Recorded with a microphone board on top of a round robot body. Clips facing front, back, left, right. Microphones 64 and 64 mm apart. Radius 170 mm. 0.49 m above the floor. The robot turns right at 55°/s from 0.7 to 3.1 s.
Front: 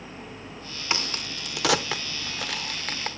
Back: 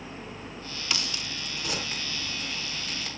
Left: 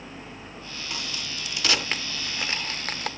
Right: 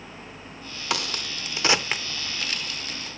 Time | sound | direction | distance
0.9 | a crack | 65° right | 0.8 m